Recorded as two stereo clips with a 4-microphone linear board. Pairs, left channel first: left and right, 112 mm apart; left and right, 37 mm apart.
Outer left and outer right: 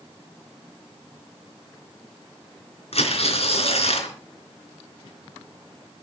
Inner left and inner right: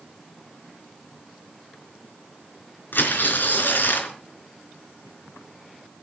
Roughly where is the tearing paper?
Left.